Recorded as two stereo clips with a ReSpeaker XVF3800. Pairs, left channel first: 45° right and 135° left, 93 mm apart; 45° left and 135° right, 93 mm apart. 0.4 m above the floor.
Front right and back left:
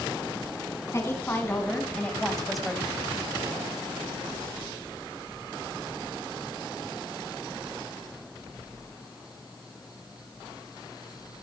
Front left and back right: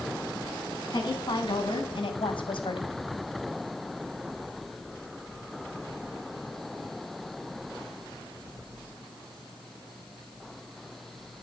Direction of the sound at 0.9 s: 15° left.